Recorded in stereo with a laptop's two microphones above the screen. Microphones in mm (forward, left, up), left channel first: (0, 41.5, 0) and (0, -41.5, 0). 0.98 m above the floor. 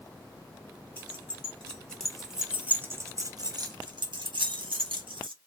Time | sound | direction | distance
1.0 | keys jangling | 25° left (ahead or behind) | 1.4 m